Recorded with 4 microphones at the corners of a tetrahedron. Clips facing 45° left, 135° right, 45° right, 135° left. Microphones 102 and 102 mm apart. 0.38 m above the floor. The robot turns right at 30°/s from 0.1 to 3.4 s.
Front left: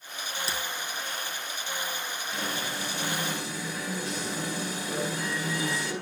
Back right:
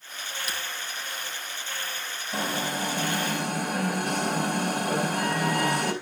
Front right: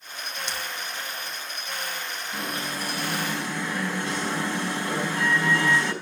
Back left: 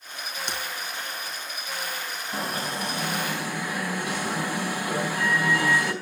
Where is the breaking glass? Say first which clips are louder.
Front left 1 dB, back left 2 dB; 100° left, 3 m; by 0.6 s 105° left, 3 m.